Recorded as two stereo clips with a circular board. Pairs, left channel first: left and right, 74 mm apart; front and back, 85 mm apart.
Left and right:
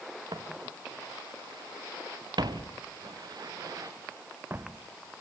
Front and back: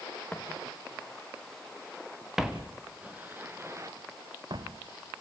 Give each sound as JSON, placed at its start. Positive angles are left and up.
{"t": 0.3, "sound": "footsteps", "azimuth_deg": -75, "distance_m": 3.0}